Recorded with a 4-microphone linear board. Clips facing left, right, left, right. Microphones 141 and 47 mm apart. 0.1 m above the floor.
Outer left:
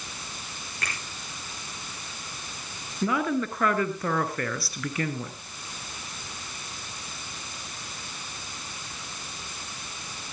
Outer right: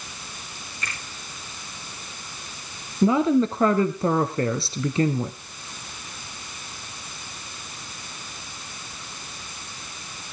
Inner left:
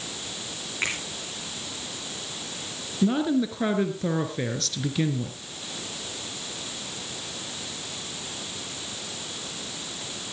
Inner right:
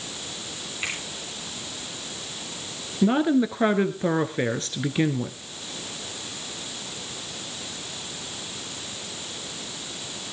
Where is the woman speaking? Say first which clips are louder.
Outer right 8 dB, inner right 3 dB; 25° right (ahead or behind), 1.2 m.